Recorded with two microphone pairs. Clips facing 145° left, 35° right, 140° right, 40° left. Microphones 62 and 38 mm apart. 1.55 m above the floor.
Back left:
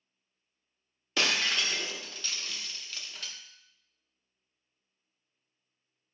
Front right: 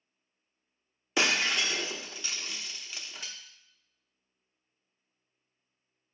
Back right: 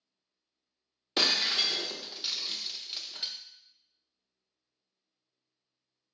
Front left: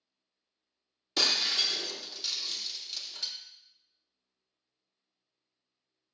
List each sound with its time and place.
1.2 s breaking glass: 95° right, 0.8 m